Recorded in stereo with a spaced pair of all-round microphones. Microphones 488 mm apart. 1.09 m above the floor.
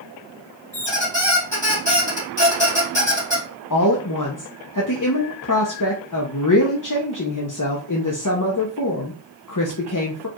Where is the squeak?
60° left (ahead or behind), 3 m.